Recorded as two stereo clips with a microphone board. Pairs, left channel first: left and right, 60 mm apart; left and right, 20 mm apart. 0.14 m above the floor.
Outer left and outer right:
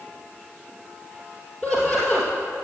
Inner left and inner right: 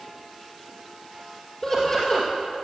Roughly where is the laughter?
Centre.